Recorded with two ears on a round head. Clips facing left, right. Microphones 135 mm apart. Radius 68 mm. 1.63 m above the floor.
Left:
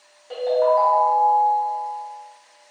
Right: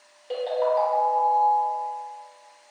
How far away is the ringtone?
About 0.7 m.